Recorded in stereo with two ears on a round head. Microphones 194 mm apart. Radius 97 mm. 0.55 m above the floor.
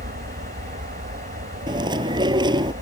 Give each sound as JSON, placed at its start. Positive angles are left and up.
{"t": 0.0, "sound": "an aircraft", "side_deg": -40}
{"t": 1.7, "sound": "chewing", "side_deg": -20}